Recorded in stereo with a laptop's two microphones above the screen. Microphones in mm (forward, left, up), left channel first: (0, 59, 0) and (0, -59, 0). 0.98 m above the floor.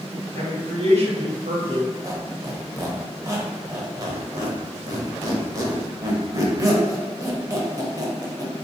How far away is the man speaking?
About 1.4 m.